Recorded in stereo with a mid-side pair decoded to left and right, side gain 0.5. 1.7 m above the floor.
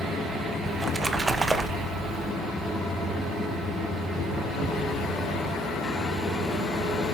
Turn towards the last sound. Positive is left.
turn(degrees=-25)